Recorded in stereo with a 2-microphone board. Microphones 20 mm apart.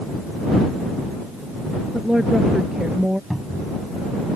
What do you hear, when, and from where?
1.9 s a woman speaking: 35° right (ahead or behind); by 3.2 s 30° right (ahead or behind)
3.3 s a cupboard door: 15° right (ahead or behind)